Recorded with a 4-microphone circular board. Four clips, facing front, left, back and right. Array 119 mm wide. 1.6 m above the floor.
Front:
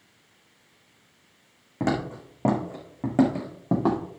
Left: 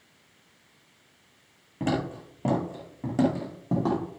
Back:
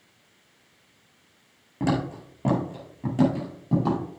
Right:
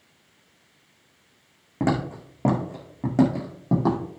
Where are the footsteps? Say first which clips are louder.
Right 4 dB, back 1 dB; 55° right, 2.5 m; by 4.0 s 20° right, 2.5 m.